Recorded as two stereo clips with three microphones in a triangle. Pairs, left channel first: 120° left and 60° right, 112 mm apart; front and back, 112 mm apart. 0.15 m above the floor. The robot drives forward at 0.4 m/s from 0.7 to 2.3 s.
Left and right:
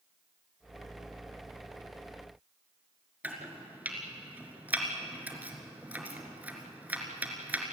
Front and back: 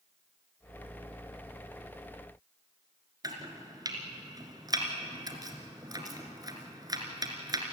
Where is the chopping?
130° right, 2.5 m.